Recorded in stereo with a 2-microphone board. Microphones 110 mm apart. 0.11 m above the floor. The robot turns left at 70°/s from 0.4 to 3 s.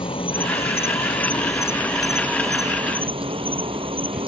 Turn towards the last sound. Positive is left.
turn(degrees=-65)